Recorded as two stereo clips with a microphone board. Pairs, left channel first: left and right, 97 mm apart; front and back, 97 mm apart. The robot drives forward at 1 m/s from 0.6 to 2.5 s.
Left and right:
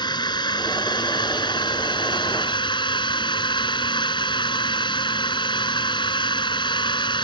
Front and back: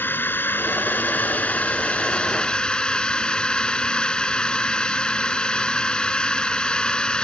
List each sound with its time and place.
0.0 s a drone: 65° left; by 7.2 s 80° left